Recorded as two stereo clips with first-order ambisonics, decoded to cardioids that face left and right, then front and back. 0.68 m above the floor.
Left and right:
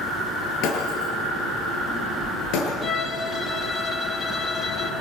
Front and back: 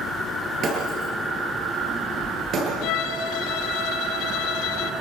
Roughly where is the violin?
Ahead.